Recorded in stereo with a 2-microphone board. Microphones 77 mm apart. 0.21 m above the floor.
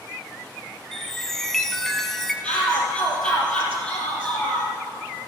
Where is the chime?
5° left (ahead or behind), 0.9 m.